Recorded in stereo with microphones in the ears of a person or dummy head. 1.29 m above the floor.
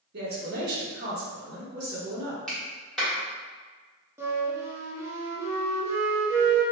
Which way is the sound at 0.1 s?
55° right (ahead or behind).